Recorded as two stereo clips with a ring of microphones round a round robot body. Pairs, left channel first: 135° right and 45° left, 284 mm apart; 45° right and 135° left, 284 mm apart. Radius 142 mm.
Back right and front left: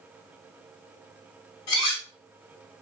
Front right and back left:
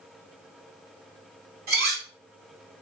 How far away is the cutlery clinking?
About 1.5 m.